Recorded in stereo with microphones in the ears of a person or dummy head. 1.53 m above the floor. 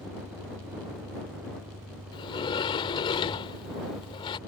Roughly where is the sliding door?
Left.